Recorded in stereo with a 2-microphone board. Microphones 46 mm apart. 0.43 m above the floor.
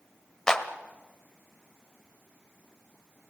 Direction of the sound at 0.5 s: 15° left (ahead or behind).